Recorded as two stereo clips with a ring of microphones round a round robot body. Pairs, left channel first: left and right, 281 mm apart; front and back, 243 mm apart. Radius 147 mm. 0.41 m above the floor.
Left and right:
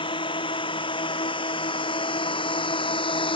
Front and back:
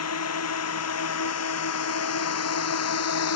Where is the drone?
15° left.